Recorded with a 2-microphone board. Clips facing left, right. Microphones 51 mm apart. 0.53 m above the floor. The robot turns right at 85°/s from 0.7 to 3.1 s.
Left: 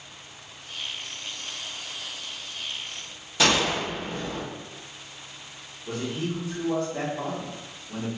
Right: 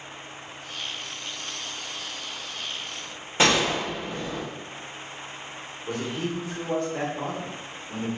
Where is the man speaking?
5° right (ahead or behind), 0.9 m.